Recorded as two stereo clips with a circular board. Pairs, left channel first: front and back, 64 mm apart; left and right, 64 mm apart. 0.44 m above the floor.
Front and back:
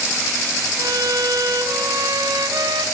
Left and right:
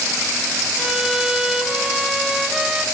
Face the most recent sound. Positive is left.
turn(degrees=-170)